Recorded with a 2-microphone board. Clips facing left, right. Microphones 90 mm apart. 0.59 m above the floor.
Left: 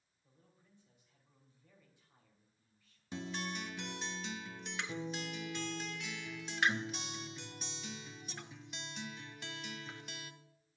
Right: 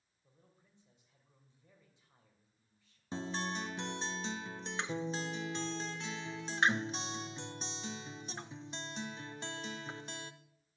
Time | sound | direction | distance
0.2 | a man speaking | 20° right (ahead or behind) | 3 m
3.1 | a guitar | 30° right (ahead or behind) | 0.6 m